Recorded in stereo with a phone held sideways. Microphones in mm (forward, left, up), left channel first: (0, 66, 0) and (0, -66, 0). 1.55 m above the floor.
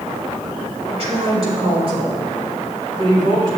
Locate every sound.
0.9 s a woman speaking: 50° right (ahead or behind), 2.5 m; by 3.6 s 40° right (ahead or behind), 4 m